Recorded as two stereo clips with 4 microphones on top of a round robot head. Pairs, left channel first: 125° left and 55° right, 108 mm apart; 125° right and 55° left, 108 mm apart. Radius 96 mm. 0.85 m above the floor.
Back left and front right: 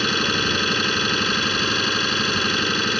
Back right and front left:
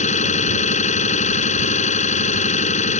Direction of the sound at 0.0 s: 145° right.